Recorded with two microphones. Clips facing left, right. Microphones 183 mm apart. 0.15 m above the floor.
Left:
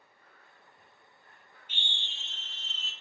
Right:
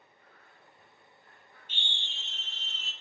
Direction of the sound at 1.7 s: 10° left (ahead or behind).